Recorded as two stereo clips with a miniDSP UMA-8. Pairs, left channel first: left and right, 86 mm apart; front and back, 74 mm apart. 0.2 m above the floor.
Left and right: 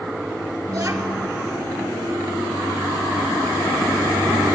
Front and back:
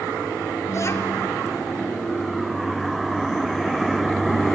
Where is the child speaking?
25° right, 1.4 m.